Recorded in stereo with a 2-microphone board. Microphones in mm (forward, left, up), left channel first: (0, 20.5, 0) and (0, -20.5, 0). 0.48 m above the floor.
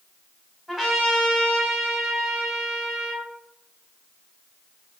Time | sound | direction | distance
0.7 | a trumpet | centre (ahead or behind) | 1.3 m